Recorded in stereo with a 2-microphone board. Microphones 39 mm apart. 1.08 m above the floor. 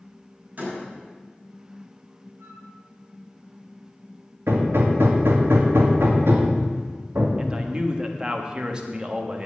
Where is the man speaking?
25° right (ahead or behind), 1.5 m.